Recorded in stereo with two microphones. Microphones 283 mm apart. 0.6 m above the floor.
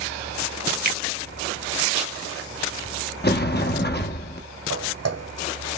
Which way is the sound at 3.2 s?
35° left (ahead or behind).